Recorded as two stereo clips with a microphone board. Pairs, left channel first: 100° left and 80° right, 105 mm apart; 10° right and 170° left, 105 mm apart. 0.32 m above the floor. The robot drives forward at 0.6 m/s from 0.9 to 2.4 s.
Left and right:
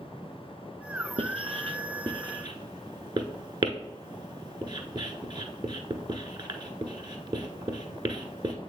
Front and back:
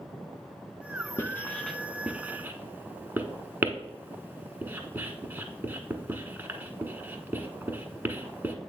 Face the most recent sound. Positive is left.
turn(degrees=-120)